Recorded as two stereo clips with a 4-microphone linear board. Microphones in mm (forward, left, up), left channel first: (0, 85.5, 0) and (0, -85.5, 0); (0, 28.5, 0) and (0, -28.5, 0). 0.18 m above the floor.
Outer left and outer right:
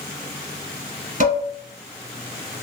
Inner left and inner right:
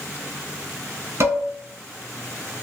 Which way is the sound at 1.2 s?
50° right (ahead or behind).